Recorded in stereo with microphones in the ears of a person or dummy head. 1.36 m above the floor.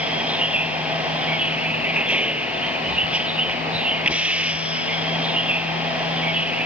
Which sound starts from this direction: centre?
A vehicle, at 0.0 s.